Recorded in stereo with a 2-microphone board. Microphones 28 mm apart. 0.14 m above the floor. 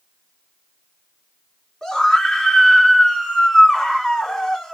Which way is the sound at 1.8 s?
20° left (ahead or behind).